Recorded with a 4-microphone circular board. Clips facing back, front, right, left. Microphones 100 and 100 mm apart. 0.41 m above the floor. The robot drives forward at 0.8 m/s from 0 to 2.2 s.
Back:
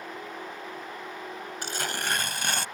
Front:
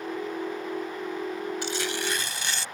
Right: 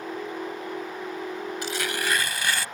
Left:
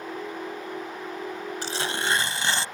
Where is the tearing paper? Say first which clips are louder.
Front 3 dB, left 1 dB; 140° left; by 2.6 s 150° left.